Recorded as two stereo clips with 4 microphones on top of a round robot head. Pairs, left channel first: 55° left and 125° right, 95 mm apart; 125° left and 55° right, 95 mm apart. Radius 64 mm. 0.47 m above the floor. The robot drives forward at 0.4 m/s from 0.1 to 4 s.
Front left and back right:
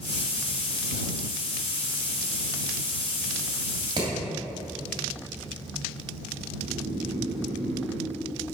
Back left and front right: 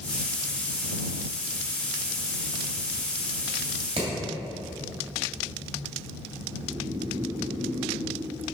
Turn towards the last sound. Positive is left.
turn(degrees=-115)